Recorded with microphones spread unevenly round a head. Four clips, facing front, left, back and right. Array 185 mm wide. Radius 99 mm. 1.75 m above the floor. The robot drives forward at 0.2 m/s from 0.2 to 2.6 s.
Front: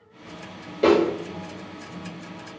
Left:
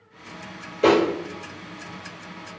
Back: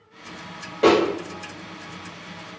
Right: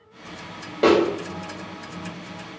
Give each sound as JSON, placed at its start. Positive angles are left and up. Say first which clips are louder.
{"t": 0.8, "sound": "a snare drum", "louder": "right 1 dB, back 1 dB", "azimuth_deg": -115, "distance_m": 1.5}